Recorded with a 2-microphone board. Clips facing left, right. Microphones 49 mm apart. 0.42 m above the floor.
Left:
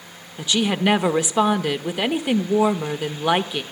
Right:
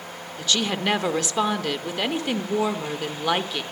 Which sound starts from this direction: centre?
A woman speaking, at 0.4 s.